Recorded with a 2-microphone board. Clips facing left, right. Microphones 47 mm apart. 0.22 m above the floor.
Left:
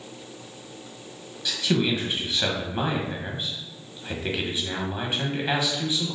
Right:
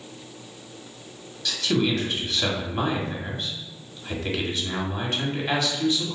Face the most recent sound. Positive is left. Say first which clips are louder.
# even
turn(degrees=15)  # may be behind; listen again after turning